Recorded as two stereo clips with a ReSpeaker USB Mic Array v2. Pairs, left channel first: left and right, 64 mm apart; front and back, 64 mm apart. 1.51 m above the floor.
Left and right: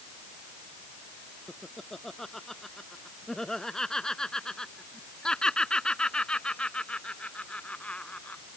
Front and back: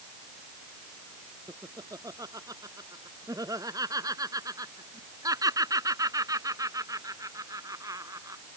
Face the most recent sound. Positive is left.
turn(degrees=160)